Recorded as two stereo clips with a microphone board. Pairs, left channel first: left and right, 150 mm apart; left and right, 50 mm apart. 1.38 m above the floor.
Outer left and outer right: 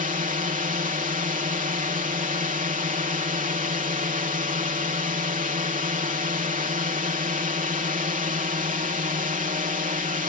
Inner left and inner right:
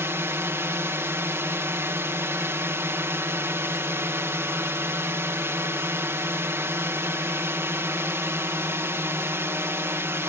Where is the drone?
60° right (ahead or behind).